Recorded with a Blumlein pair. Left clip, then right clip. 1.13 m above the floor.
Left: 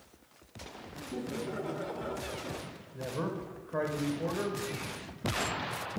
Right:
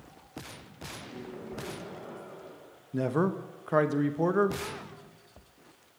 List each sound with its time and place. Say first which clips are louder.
1.0 s laughter: left 9 dB; 30° left, 2 m
2.9 s a man speaking: right 7 dB; 40° right, 0.8 m